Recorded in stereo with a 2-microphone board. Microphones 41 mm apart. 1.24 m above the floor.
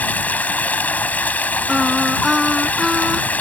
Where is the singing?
5° right (ahead or behind).